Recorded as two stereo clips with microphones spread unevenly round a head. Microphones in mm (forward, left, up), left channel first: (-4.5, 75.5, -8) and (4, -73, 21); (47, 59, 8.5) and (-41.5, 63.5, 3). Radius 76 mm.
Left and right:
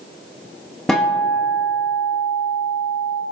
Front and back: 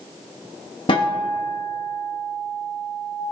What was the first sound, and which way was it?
A guitar, 10° left.